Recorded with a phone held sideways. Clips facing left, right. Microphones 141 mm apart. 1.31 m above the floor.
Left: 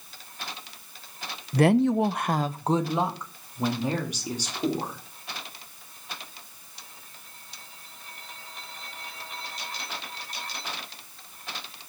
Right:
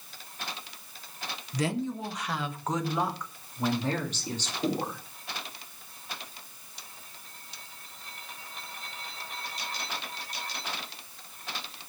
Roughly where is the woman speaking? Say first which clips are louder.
Left 11 dB; left.